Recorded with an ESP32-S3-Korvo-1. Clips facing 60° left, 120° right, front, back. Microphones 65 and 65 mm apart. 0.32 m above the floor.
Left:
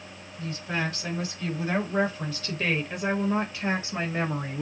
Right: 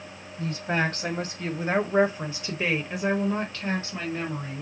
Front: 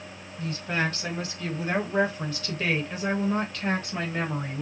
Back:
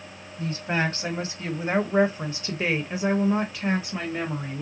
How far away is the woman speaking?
About 2 m.